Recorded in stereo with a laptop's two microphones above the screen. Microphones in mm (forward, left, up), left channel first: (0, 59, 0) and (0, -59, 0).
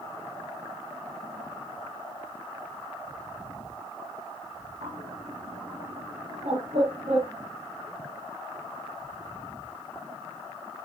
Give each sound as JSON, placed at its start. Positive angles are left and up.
{"t": 4.8, "sound": "a bird", "side_deg": -65, "distance_m": 1.9}